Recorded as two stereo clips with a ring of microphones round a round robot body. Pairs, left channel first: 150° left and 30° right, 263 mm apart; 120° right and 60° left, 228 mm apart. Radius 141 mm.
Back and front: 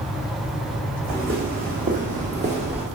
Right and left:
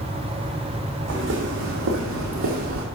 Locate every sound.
1.1 s footsteps: 25° left, 2.5 m; by 2.9 s 40° left, 1.8 m